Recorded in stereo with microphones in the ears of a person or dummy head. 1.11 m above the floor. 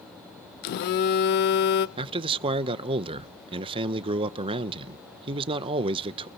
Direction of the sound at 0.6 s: 50° left (ahead or behind).